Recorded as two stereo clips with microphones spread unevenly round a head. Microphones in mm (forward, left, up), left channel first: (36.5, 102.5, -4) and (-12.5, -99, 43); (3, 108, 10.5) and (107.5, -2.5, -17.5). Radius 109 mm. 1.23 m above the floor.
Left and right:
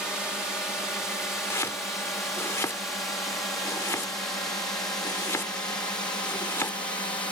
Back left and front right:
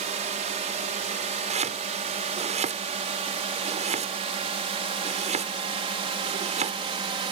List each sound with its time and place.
0.0 s a drone: 10° right; by 7.3 s straight ahead
1.5 s chopping: 5° right